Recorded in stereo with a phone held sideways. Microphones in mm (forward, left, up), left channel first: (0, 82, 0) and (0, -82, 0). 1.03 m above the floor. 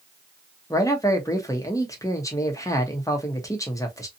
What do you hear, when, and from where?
0.7 s a man speaking: 20° left (ahead or behind), 0.9 m